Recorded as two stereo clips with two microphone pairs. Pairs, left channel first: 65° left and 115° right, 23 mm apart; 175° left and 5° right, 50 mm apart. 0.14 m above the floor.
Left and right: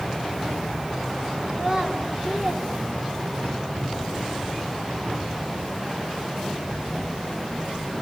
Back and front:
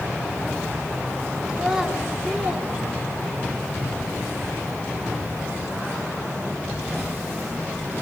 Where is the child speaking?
85° right, 1.6 m.